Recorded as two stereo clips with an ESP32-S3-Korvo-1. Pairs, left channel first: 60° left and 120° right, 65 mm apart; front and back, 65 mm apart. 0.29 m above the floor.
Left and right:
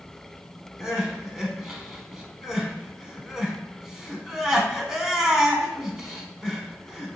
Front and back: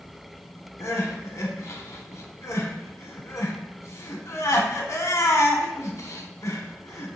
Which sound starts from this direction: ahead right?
Crying, at 0.8 s.